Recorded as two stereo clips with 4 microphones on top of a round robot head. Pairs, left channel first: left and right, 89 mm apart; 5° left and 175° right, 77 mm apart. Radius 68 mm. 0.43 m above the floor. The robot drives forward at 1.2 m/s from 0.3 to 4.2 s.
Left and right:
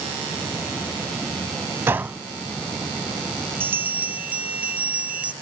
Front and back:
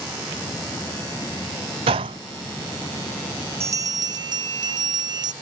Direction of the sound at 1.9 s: 160° right.